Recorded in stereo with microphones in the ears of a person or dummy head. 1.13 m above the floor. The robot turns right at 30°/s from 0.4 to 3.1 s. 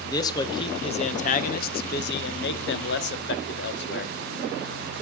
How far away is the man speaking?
About 1.1 m.